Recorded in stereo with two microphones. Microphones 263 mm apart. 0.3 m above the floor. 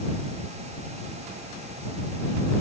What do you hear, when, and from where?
Only background noise.